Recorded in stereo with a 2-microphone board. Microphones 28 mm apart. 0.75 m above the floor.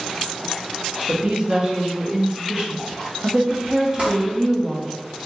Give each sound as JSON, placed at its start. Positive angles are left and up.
{"t": 1.1, "sound": "a woman speaking", "side_deg": -30, "distance_m": 0.8}
{"t": 4.0, "sound": "crumpling", "side_deg": -50, "distance_m": 1.3}